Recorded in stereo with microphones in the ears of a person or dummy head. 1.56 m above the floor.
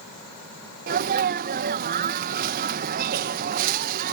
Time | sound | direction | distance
0.9 | a sneeze | 50° right (ahead or behind) | ?